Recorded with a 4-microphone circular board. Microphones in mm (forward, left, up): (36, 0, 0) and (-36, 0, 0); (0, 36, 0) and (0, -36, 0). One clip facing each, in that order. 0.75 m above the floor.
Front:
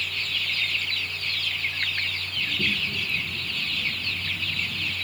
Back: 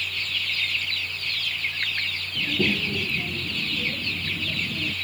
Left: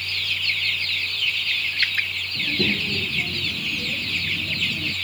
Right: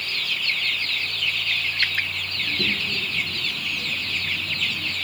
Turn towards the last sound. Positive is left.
turn(degrees=160)